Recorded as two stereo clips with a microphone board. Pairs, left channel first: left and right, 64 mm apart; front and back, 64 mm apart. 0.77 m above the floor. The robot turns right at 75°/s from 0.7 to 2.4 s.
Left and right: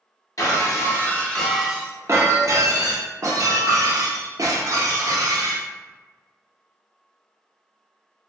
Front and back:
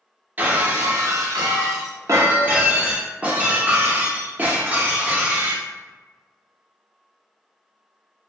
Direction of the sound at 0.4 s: 120° left.